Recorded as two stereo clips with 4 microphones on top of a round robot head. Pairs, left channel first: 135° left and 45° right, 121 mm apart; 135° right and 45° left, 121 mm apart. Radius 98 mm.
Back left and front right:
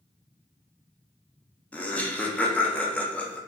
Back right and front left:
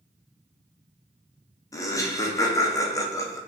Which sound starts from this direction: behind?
Laughter, at 1.7 s.